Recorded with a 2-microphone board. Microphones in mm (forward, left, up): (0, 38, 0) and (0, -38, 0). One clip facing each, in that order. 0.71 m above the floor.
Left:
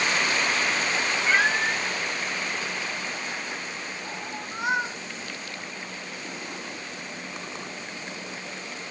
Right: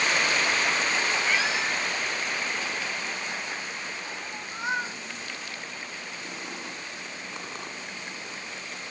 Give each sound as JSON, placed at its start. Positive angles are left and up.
{"t": 1.3, "sound": "a cat meowing", "side_deg": 55}